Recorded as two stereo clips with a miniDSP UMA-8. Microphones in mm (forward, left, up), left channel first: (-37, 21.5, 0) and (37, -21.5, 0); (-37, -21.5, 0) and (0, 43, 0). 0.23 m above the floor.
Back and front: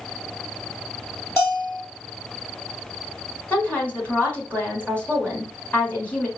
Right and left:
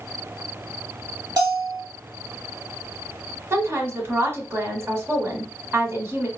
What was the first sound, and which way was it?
A bell, 90° left.